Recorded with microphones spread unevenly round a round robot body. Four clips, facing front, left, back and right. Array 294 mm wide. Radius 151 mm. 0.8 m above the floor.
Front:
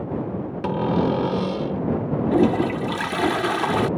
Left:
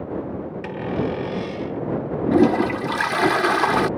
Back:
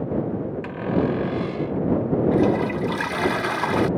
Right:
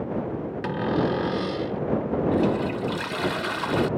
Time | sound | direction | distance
0.6 | a cupboard door | 10° right | ?
2.3 | a toilet flushing | 55° left | ?